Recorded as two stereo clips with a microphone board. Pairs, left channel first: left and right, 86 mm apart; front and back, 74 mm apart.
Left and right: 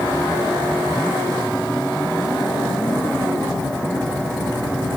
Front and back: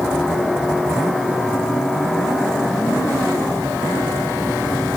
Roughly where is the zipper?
No zipper in this recording.